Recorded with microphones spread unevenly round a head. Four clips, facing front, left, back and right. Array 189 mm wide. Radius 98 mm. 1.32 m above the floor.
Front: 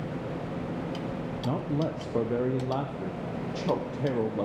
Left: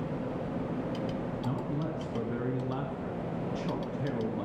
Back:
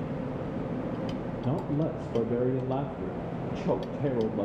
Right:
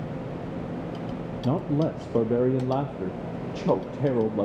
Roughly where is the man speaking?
Right.